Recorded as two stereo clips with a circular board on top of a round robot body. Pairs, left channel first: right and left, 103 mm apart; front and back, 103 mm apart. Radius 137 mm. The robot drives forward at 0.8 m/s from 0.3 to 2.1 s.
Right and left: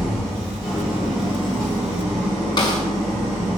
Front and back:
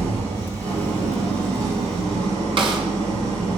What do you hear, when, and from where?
0.0 s an engine running: straight behind, 5 m
2.6 s a snare drum: 140° right, 2.5 m